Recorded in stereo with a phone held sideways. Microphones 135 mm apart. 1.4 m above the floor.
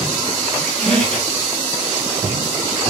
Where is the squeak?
5° left (ahead or behind), 1.8 m.